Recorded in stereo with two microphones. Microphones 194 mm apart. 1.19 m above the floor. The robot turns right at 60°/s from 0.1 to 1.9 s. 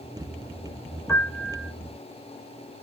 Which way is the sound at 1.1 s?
165° left.